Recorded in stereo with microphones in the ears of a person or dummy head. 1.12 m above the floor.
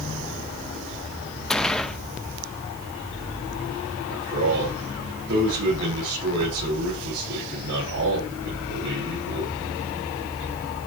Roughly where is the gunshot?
Centre.